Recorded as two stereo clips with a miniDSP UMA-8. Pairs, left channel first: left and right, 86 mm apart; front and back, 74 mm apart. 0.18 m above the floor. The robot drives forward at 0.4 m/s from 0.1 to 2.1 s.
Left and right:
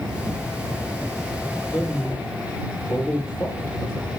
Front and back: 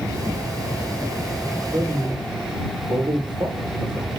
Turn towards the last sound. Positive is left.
turn(degrees=155)